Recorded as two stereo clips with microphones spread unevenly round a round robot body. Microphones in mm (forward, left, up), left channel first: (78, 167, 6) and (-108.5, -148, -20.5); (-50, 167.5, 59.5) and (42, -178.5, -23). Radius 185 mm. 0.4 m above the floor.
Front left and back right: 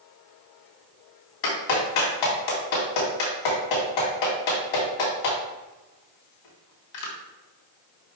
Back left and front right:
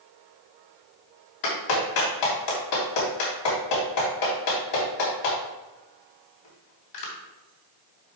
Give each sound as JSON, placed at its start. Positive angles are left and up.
{"t": 1.4, "sound": "a clap", "azimuth_deg": 70, "distance_m": 3.0}